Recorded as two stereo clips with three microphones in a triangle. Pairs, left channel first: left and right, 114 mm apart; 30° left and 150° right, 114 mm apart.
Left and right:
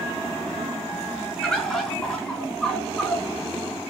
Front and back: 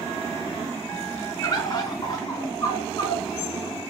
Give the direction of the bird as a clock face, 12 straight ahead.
12 o'clock.